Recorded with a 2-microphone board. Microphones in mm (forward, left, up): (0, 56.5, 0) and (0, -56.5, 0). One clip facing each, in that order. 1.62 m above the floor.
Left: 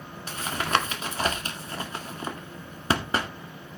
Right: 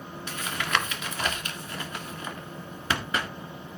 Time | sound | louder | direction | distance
0.3 | tapping | left 3 dB | 35° left (ahead or behind) | 1.9 m